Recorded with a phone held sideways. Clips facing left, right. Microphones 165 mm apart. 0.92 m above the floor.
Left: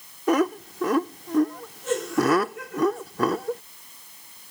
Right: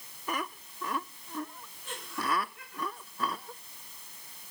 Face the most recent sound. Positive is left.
turn(degrees=75)  # may be behind; listen again after turning